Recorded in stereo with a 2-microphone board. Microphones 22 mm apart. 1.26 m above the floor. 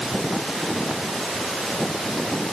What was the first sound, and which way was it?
Only background noise.